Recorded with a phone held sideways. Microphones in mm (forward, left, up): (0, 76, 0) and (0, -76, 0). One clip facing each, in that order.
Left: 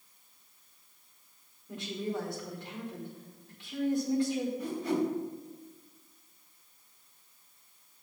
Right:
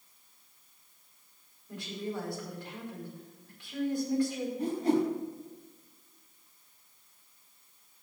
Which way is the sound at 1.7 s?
25° left (ahead or behind).